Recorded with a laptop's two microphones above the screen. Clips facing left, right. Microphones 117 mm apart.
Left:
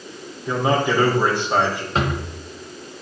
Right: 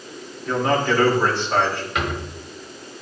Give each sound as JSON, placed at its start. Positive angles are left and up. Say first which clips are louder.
{"t": 0.5, "sound": "a man speaking", "louder": "even", "side_deg": 15, "distance_m": 2.5}
{"t": 1.9, "sound": "a drawer", "louder": "left 5 dB", "side_deg": 35, "distance_m": 1.0}